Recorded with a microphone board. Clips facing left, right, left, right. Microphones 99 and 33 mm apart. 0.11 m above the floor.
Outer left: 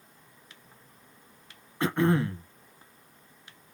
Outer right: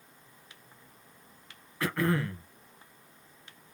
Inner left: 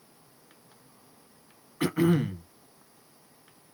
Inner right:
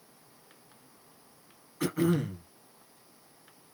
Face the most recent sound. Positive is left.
turn(degrees=25)  # may be behind; listen again after turning